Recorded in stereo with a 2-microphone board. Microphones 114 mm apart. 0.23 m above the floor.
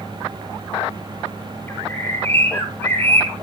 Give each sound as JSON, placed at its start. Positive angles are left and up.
{"t": 1.7, "sound": "a bird", "side_deg": 20, "distance_m": 2.0}